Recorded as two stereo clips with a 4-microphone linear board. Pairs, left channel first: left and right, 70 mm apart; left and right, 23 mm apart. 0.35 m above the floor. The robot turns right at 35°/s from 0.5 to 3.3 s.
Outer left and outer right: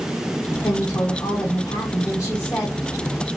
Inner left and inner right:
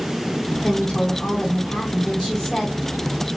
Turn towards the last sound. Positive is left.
turn(degrees=180)